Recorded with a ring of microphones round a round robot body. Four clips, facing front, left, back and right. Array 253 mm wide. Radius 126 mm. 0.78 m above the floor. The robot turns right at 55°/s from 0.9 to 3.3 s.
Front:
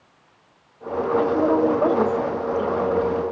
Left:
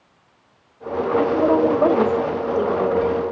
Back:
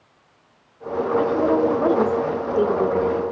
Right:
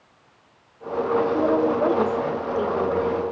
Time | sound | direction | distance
1.2 | a woman speaking | 75° left | 2.5 m